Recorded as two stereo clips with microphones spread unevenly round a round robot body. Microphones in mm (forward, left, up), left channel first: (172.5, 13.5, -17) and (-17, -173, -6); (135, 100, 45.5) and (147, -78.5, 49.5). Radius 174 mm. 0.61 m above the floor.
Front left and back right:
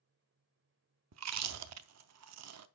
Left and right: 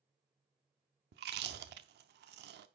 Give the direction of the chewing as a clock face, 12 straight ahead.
4 o'clock.